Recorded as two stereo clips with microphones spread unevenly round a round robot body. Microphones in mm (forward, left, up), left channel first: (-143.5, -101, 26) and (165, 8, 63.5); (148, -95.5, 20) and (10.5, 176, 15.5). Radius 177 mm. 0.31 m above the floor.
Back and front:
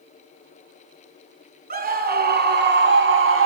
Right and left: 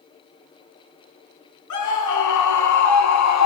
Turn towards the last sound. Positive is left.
turn(degrees=-35)